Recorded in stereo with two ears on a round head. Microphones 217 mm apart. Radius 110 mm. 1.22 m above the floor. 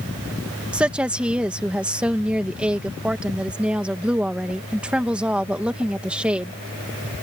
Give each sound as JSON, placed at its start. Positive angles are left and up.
{"t": 0.7, "sound": "a woman speaking", "side_deg": -5}